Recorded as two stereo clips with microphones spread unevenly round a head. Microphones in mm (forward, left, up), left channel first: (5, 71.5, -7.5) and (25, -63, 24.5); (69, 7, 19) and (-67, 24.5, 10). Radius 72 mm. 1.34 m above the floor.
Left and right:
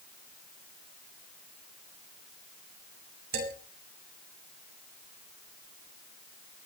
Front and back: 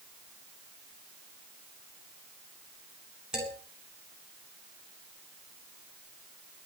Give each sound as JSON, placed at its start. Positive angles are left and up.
{"t": 3.3, "sound": "a man speaking", "azimuth_deg": -105, "distance_m": 8.0}